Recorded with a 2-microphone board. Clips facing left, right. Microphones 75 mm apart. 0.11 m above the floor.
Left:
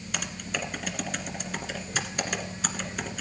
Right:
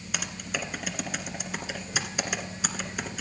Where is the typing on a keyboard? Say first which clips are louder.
Even; 5° right (ahead or behind), 1.5 m.